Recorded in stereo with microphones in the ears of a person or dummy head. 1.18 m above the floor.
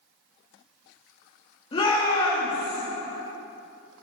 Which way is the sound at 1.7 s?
40° left (ahead or behind).